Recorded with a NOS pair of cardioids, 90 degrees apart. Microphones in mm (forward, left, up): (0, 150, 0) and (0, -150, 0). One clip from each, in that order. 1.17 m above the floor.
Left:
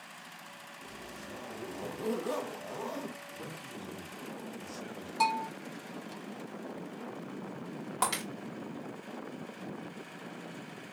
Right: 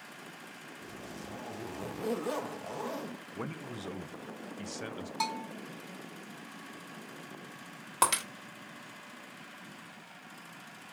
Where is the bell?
10° right, 1.2 m.